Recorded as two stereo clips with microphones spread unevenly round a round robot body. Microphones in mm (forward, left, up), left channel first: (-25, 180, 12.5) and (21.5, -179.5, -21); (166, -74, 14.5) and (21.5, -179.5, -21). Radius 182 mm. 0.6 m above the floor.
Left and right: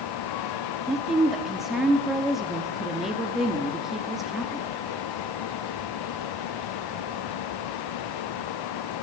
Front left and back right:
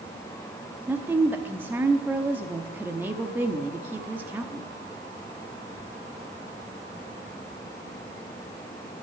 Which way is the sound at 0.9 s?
155° right.